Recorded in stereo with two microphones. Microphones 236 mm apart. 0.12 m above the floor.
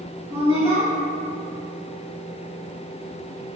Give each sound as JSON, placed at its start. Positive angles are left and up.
{"t": 0.3, "sound": "a woman speaking", "side_deg": -10, "distance_m": 1.2}